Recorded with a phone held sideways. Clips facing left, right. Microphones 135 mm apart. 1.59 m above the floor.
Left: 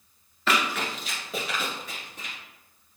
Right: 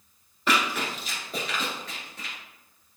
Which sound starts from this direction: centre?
Running footsteps, at 0.5 s.